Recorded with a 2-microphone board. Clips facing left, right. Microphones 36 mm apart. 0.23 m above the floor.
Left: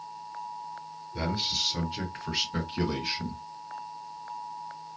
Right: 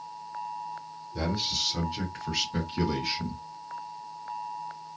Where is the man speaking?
15° left (ahead or behind), 1.9 m; by 3.4 s 5° left (ahead or behind), 3 m.